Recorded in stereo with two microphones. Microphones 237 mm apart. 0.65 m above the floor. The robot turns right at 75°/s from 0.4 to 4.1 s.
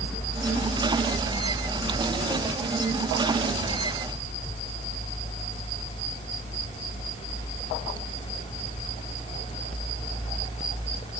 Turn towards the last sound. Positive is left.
No sound to turn to.